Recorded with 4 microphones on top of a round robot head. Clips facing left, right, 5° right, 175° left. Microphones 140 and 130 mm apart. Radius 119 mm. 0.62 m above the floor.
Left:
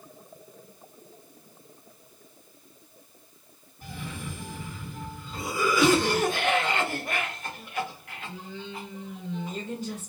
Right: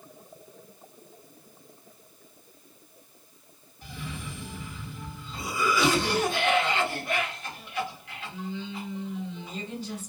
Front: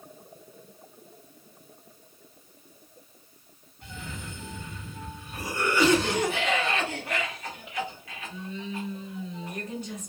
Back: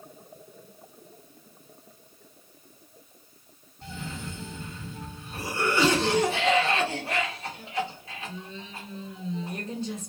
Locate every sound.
3.8 s a cough: 120° left, 1.5 m